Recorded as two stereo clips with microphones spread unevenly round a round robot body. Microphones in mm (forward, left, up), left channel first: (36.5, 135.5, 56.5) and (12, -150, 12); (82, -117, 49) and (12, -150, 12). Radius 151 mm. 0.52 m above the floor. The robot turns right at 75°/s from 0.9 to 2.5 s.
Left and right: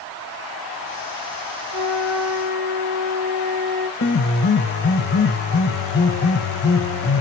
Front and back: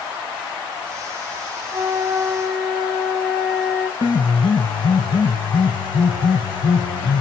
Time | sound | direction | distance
1.7 | a flute | 105° right | 1.8 m
4.0 | a piano | 35° left | 0.7 m